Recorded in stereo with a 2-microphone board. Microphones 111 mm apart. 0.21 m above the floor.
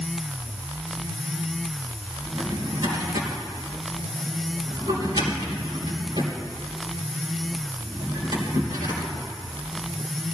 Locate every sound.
2.3 s a drawer: 45° right (ahead or behind), 2.5 m